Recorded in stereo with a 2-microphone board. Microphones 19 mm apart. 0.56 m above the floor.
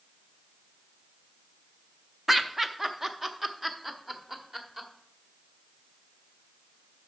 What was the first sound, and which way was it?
Laughter, 10° right (ahead or behind).